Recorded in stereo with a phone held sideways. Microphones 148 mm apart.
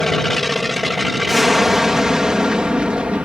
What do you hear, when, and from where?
0.0 s an aircraft: centre (ahead or behind); by 3.2 s 10° right (ahead or behind)